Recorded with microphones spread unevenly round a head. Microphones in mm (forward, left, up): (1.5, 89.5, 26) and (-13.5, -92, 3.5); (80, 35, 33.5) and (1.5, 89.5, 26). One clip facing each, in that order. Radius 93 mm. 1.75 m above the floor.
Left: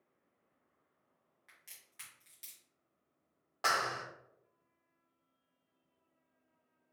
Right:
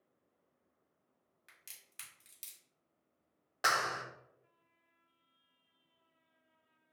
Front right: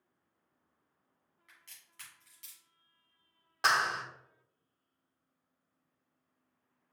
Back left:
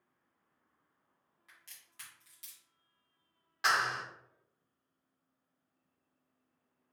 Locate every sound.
1.5 s a crack: 145° right, 1.7 m
3.6 s a clap: 25° right, 0.7 m